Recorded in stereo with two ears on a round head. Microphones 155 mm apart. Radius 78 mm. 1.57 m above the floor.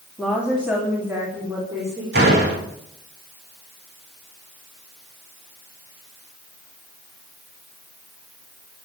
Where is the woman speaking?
5° right (ahead or behind), 3 m; by 2.0 s 20° right (ahead or behind), 4.5 m.